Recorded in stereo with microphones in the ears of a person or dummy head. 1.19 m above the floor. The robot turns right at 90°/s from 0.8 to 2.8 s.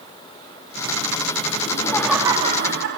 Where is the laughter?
140° left, 3 m; by 3.0 s 120° right, 3 m.